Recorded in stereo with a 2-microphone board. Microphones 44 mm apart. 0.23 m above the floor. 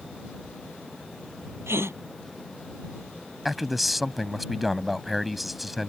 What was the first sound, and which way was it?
A gasp, 75° right (ahead or behind).